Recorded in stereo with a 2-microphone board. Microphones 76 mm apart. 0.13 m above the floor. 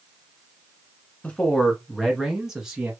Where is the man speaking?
20° left (ahead or behind), 1.2 m; by 2.9 s 15° right (ahead or behind), 1.6 m.